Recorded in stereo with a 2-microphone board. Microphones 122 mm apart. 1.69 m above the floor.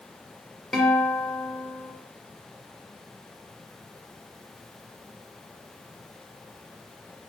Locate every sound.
0.7 s a guitar: centre (ahead or behind), 0.6 m